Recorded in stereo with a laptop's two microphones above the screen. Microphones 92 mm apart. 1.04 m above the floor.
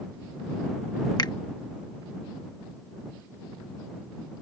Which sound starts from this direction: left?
A finger snap, at 1.2 s.